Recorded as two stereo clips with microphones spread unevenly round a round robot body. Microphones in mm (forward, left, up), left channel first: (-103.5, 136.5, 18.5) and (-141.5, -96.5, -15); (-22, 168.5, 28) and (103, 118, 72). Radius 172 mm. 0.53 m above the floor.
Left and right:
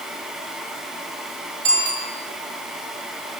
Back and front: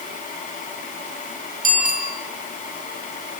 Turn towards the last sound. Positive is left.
turn(degrees=-5)